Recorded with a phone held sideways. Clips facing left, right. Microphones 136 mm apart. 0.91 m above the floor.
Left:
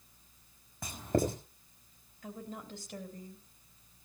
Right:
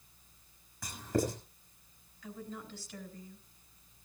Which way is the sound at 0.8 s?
60° left (ahead or behind).